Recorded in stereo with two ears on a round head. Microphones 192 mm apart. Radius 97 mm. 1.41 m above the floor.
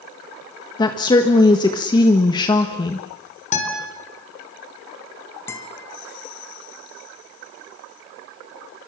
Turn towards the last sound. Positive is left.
turn(degrees=10)  # may be behind; listen again after turning